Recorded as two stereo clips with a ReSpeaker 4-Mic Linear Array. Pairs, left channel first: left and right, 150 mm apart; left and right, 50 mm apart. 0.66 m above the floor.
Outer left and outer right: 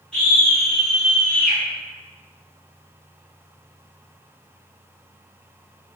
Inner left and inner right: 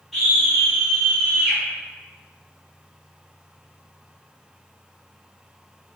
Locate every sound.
0.1 s a scream: 5° left (ahead or behind), 1.5 m; by 1.6 s centre (ahead or behind), 2.5 m